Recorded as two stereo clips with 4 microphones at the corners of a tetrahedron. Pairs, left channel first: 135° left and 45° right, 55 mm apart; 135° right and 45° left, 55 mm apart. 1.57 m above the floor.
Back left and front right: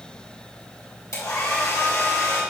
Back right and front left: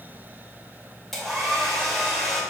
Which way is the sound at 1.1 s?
140° left.